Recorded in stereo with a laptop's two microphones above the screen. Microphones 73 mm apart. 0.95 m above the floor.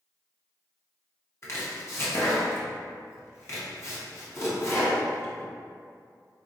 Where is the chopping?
35° left (ahead or behind), 1.0 m.